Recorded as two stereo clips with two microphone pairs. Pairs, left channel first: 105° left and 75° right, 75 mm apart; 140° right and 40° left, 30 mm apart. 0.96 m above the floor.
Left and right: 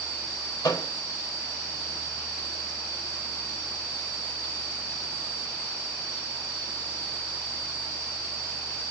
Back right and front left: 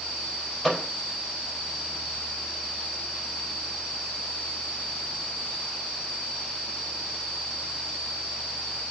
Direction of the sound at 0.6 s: 125° left.